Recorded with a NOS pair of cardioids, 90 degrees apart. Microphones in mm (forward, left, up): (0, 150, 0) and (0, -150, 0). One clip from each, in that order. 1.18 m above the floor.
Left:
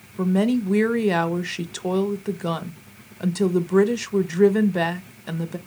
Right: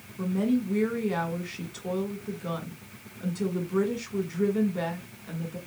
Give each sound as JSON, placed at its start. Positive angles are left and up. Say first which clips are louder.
{"t": 0.2, "sound": "a woman speaking", "louder": "left 6 dB", "azimuth_deg": 60, "distance_m": 1.0}